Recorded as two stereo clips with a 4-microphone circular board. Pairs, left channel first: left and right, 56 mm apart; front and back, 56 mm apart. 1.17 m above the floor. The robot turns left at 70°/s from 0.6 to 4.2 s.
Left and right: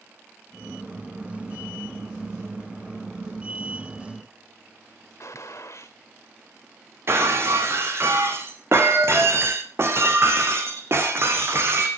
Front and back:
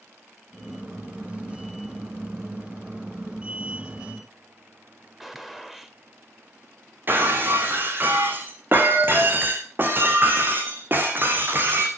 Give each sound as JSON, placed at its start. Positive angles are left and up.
{"t": 5.2, "sound": "a gunshot", "azimuth_deg": 95, "distance_m": 1.5}
{"t": 7.1, "sound": "breaking glass", "azimuth_deg": -130, "distance_m": 3.5}